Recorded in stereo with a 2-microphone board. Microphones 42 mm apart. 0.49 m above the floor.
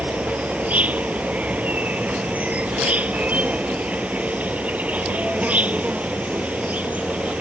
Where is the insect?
40° right (ahead or behind).